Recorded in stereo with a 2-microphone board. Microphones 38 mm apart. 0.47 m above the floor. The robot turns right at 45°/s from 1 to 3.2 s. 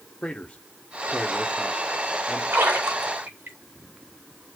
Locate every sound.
0.2 s a man speaking: 25° left (ahead or behind), 0.9 m; by 2.4 s 15° left (ahead or behind), 0.9 m
2.5 s a splash: 75° right (ahead or behind), 3 m; by 3.6 s 65° right (ahead or behind), 3 m